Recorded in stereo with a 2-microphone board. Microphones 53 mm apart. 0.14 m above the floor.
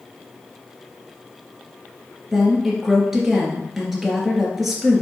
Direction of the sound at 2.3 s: 5° right (ahead or behind).